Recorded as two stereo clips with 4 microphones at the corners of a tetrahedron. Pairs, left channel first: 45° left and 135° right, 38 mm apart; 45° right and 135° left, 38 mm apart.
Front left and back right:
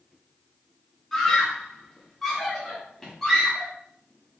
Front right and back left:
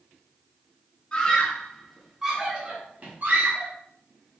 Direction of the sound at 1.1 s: 25° right.